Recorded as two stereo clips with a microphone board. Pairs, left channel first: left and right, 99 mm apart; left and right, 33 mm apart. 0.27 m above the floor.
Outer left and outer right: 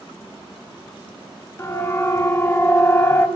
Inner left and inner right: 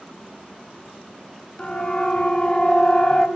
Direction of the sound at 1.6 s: 25° left (ahead or behind).